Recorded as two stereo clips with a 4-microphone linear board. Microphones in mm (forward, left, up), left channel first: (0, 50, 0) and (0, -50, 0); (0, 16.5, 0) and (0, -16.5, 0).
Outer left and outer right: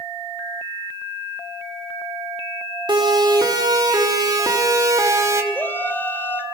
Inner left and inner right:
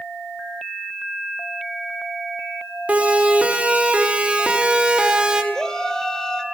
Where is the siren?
45° right (ahead or behind), 4.5 m; by 5.4 s 25° right (ahead or behind), 2.5 m.